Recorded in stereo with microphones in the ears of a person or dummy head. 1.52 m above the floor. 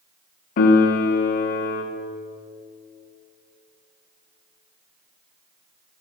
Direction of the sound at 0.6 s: 55° left (ahead or behind).